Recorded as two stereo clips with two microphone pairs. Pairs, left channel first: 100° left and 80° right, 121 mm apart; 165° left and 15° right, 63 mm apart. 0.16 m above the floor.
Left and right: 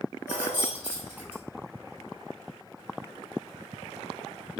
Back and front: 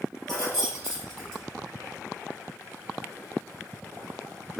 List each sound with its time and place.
0.3 s keys jangling: 85° left, 2.5 m